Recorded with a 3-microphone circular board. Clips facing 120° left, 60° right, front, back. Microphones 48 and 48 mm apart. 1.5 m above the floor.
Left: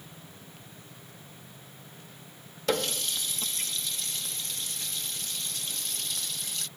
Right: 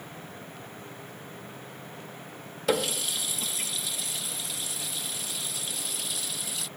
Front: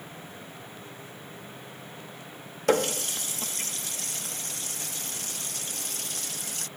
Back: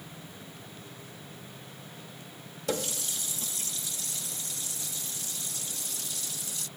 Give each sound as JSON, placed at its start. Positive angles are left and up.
{"t": 2.7, "sound": "a running tap", "azimuth_deg": 25}